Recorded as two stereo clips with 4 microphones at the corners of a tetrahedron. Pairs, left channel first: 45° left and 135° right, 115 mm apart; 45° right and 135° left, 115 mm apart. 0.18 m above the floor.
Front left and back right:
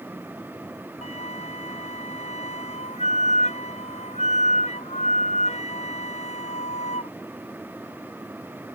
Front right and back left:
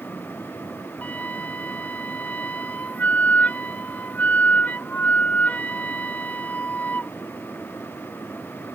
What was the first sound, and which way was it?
A flute, 30° left.